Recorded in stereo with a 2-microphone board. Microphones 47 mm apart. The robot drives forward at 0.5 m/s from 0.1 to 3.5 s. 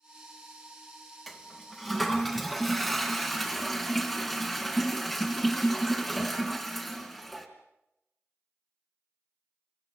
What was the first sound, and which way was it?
A toilet flushing, centre (ahead or behind).